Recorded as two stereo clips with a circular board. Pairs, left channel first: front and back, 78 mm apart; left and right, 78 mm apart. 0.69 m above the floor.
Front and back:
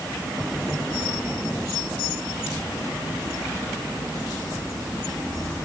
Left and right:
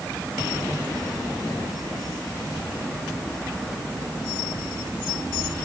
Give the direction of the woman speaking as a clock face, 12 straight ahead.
No woman speaking in this recording.